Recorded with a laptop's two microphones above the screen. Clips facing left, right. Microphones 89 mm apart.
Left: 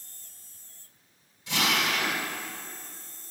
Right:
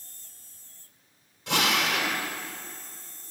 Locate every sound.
1.5 s a drill: 70° right (ahead or behind), 1.9 m